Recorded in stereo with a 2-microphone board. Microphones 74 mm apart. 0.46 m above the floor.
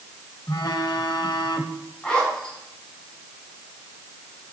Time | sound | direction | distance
0.5 | a phone buzzing | 65° left (ahead or behind) | 0.8 m
2.0 | a zipper | 15° left (ahead or behind) | 4.5 m